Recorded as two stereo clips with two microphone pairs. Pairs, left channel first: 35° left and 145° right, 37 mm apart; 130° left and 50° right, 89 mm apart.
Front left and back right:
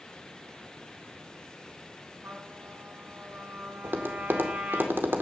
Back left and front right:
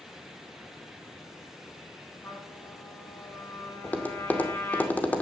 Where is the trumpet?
165° right, 9.5 m.